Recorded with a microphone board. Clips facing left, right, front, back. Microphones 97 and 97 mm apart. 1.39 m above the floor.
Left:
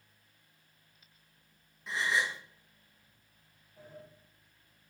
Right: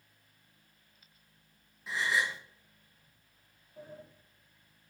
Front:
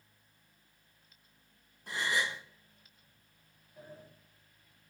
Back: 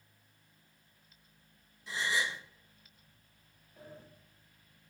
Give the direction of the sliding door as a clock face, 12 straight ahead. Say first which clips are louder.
Right 3 dB, front 1 dB; 3 o'clock.